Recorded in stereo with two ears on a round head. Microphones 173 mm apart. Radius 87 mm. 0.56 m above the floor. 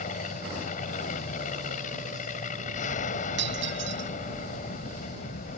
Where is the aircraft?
40° left (ahead or behind).